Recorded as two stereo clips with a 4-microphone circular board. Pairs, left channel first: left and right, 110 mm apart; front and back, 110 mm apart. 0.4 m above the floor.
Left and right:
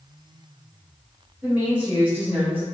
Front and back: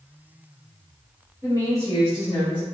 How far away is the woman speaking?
About 1.3 m.